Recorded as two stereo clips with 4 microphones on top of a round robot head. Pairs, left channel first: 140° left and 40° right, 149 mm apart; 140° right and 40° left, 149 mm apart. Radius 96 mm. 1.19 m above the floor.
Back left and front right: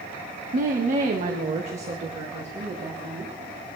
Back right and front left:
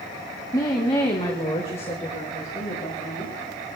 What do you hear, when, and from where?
0.5 s a woman speaking: 70° right, 1.4 m; by 3.3 s 95° right, 3.5 m